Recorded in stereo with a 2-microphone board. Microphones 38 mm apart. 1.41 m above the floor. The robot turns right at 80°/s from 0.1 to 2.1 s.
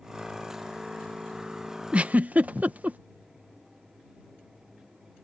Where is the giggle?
30° right (ahead or behind); by 3.0 s 45° right (ahead or behind).